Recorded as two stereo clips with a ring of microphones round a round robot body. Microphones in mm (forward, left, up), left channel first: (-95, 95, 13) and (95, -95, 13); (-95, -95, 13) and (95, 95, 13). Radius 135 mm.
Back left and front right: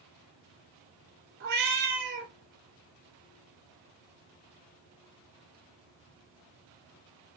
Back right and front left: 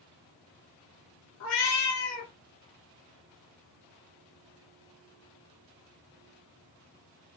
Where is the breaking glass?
No breaking glass in this recording.